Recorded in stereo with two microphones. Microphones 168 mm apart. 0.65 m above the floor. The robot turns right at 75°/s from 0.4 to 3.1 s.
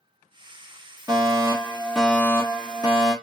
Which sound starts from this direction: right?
A fire alarm, at 1.1 s.